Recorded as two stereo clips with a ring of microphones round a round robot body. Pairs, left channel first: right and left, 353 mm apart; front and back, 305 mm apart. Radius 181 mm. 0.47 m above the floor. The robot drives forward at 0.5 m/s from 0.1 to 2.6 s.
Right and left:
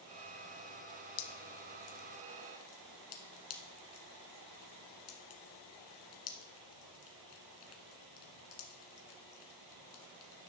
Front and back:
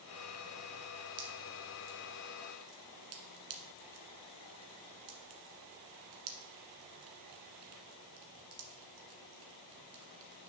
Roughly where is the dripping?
Behind right.